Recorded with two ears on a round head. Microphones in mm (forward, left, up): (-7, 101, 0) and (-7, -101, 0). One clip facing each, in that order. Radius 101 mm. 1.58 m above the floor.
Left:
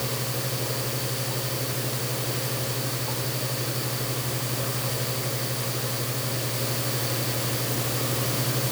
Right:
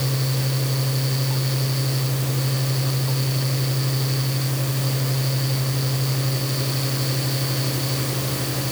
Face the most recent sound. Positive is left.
No sound to turn to.